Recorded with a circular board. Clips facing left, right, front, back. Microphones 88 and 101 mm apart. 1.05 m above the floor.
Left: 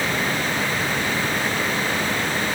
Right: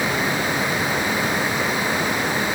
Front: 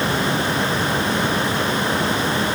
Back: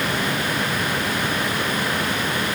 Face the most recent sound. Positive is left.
No sound to turn to.